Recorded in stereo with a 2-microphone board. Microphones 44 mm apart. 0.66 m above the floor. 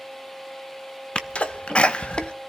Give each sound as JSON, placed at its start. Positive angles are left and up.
{"t": 1.1, "sound": "a sneeze", "side_deg": 25, "distance_m": 0.7}